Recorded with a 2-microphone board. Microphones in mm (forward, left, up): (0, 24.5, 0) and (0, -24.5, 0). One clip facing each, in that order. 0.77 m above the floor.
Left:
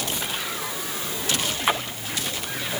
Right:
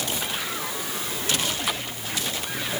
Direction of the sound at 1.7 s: 30° left (ahead or behind).